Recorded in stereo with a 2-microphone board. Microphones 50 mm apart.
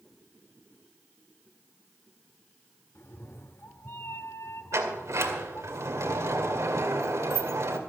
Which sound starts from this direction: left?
A cat meowing, at 3.0 s.